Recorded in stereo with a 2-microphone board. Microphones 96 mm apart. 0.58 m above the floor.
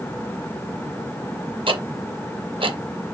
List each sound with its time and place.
1.7 s ticking: 65° right (ahead or behind), 0.5 m